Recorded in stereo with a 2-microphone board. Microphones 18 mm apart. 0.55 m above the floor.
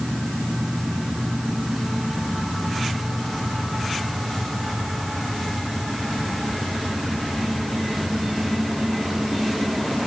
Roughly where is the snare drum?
I don't hear a snare drum.